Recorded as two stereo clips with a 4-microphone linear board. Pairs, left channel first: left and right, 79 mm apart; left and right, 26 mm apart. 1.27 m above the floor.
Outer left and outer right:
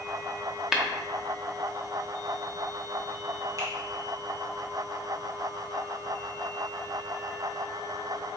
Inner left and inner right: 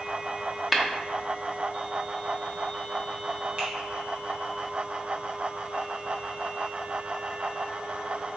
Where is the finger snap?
45° right (ahead or behind), 1.1 m.